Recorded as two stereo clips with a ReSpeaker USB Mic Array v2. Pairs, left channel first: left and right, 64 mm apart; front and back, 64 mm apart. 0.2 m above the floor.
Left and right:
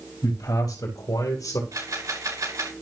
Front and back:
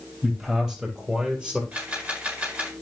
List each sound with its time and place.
0.2 s a man speaking: 100° left, 4.5 m; by 1.6 s 105° left, 4 m
1.7 s a camera shutter: 110° right, 7.5 m